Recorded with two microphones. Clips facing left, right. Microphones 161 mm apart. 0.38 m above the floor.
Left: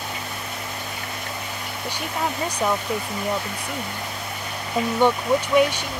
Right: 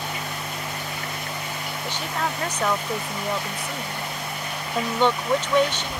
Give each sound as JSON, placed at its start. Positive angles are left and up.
{"t": 1.8, "sound": "a woman speaking", "side_deg": 10}